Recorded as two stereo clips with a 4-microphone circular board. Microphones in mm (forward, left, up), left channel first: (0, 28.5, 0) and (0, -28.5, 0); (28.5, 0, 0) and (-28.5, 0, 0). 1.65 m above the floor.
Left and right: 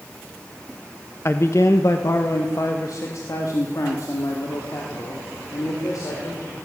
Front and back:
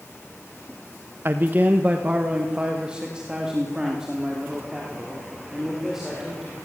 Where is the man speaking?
130° left, 1.3 m; by 6.5 s 95° left, 7 m.